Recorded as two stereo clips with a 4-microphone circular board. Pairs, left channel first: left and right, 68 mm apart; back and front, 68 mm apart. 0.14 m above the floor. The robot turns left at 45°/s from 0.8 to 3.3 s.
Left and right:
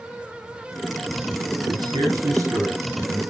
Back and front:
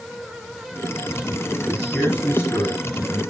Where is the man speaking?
90° right, 9.5 m; by 3.2 s 165° right, 9.5 m.